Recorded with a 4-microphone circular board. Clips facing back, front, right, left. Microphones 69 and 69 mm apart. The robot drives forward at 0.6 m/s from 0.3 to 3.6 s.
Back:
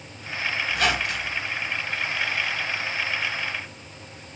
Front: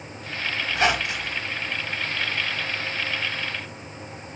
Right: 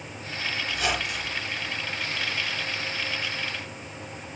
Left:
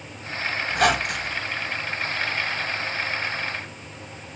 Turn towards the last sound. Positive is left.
turn(degrees=115)